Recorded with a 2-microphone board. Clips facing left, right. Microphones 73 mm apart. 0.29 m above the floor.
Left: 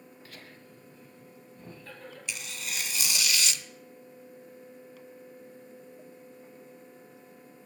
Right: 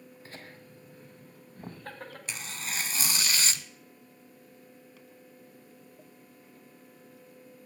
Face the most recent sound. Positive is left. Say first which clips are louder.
# even
turn(degrees=-40)  # may be behind; listen again after turning